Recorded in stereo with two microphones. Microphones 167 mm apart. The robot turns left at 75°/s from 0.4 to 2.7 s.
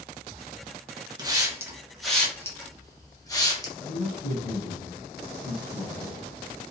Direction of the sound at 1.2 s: 25° right (ahead or behind).